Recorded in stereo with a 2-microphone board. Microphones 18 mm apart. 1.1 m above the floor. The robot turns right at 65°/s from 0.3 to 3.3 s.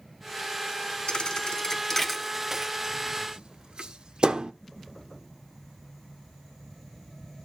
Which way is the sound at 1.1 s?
55° left (ahead or behind).